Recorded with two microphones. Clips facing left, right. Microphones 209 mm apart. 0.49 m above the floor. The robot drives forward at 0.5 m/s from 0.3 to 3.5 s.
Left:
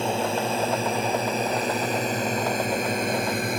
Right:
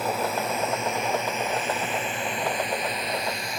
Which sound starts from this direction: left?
A drone, at 0.0 s.